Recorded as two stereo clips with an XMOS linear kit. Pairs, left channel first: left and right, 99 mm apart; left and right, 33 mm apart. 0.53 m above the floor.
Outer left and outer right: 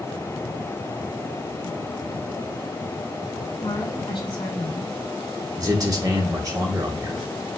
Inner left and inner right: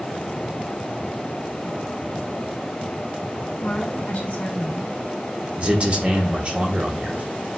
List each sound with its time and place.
3.6 s a woman speaking: 55° left (ahead or behind), 2 m
5.6 s a man speaking: 35° right (ahead or behind), 1.1 m